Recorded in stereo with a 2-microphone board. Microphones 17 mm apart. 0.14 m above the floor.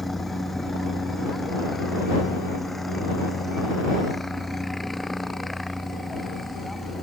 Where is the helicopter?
5° left (ahead or behind); by 7.0 s centre (ahead or behind).